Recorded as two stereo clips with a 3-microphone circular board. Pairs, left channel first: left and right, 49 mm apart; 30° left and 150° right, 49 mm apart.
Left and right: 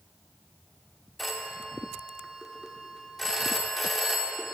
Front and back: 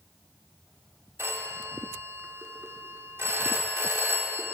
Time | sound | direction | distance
1.2 | a phone ringing | 175° left | 0.8 m